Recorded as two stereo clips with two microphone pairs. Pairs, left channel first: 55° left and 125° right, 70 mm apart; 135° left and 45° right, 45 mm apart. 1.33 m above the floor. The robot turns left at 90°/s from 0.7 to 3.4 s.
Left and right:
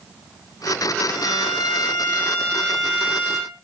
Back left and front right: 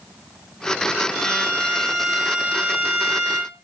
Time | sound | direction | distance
1.1 | a violin | 120° left | 0.8 m